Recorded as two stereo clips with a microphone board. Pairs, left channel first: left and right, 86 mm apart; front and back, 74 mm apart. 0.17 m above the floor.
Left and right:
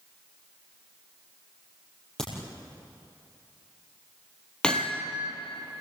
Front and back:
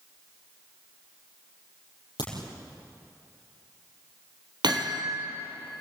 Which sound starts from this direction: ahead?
A crack, at 2.2 s.